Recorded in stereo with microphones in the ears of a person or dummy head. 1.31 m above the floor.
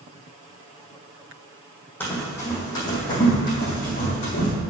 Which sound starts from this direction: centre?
Running footsteps, at 2.0 s.